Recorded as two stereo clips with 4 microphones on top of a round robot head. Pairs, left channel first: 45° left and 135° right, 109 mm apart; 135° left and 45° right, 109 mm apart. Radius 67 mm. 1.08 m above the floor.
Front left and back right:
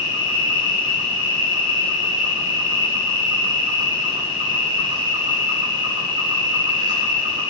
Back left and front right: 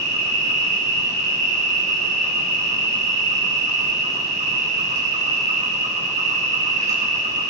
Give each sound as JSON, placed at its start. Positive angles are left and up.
{"t": 0.0, "sound": "an insect", "azimuth_deg": -75, "distance_m": 4.0}